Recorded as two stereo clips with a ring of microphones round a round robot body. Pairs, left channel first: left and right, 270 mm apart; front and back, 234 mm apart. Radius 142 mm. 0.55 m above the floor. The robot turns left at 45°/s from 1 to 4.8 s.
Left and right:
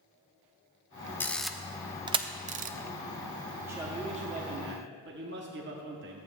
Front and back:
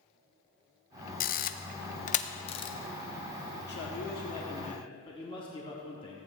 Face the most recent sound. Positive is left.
turn(degrees=-60)